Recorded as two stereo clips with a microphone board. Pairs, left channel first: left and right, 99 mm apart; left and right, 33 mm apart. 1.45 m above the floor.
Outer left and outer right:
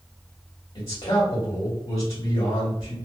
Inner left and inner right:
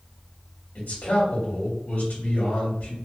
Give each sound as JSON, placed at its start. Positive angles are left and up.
{"t": 0.8, "sound": "a man speaking", "side_deg": 65, "distance_m": 1.7}